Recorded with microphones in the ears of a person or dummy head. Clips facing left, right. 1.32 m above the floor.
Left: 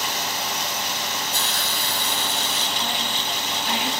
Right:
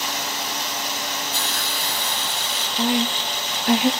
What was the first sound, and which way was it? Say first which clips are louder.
A hiss: even; 45° left (ahead or behind).